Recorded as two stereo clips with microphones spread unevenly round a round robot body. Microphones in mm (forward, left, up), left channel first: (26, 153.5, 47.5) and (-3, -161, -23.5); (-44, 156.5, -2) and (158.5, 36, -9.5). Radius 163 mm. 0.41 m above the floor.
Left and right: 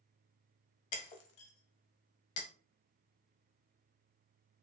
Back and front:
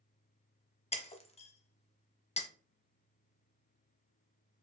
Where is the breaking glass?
80° left, 0.9 m.